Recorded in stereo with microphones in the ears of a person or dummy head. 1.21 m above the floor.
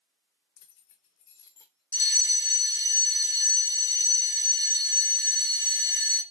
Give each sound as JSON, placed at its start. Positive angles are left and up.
{"t": 0.6, "sound": "keys jangling", "side_deg": 65, "distance_m": 0.6}
{"t": 1.9, "sound": "a fire alarm", "side_deg": 15, "distance_m": 1.1}